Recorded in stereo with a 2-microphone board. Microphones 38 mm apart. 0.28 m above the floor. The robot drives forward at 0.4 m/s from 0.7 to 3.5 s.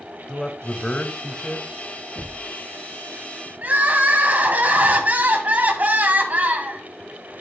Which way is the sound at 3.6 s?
45° right (ahead or behind).